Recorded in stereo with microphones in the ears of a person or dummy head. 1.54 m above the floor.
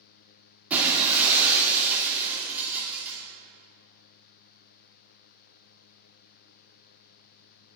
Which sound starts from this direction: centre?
Breaking glass, at 0.7 s.